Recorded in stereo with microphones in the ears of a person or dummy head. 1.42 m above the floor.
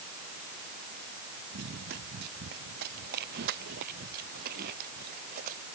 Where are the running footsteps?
60° right (ahead or behind); by 5.6 s 45° right (ahead or behind).